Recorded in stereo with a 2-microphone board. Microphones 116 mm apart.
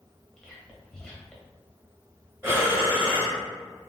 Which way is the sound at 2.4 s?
25° right (ahead or behind).